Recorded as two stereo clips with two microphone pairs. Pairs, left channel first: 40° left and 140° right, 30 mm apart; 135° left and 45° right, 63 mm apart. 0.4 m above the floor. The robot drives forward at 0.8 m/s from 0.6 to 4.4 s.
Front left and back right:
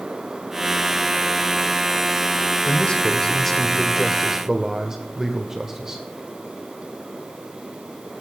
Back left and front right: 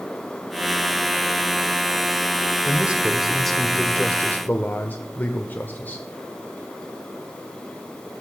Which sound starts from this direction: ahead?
A man speaking, at 2.6 s.